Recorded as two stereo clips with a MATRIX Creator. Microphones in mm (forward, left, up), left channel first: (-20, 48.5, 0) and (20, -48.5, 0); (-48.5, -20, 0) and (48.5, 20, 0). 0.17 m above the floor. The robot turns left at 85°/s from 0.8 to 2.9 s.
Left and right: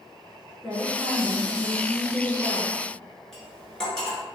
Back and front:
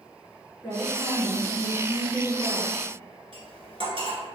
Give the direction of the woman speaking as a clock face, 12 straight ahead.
5 o'clock.